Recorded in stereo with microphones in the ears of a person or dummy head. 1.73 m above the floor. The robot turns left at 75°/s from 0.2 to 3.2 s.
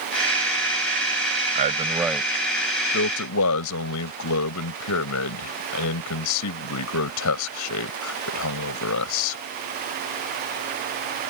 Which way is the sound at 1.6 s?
40° right (ahead or behind).